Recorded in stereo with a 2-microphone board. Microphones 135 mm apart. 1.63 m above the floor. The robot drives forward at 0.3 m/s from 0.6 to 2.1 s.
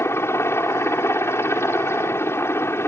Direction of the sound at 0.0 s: 20° left (ahead or behind).